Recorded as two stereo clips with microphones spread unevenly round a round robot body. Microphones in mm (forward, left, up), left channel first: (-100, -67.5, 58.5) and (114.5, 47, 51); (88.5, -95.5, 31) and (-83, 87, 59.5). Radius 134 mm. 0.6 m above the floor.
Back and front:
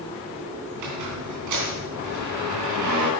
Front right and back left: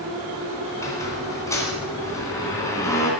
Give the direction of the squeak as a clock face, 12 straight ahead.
11 o'clock.